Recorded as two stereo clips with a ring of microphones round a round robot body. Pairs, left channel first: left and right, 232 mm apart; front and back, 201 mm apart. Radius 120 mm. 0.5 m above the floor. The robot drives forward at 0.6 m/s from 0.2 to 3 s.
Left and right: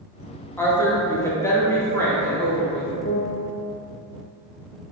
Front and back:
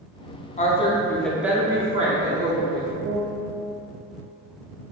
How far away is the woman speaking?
About 0.8 m.